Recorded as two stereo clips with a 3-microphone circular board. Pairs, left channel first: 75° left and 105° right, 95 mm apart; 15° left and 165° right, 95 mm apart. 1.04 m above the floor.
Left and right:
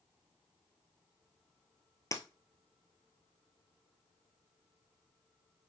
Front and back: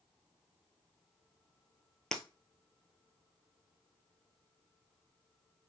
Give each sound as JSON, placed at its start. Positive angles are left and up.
{"t": 2.1, "sound": "breaking glass", "azimuth_deg": 95, "distance_m": 1.2}